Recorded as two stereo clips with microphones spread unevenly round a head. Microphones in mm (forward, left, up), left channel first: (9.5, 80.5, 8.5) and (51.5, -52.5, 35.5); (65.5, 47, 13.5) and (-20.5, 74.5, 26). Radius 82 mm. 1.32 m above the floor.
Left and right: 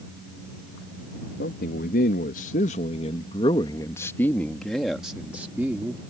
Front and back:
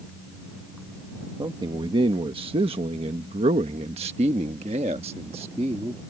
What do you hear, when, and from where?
1.4 s a man speaking: 125° left; by 6.0 s 150° right